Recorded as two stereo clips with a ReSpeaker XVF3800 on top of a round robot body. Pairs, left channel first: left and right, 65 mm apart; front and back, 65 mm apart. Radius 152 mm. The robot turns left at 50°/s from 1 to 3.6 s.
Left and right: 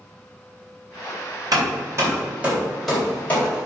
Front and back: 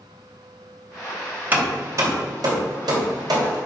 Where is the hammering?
115° right, 3.5 m; by 3.6 s 140° left, 3.5 m.